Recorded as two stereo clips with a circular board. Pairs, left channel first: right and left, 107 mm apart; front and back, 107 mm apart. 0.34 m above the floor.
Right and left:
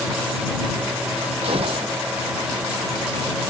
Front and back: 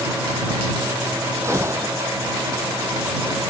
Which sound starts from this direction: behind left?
A gunshot, at 1.4 s.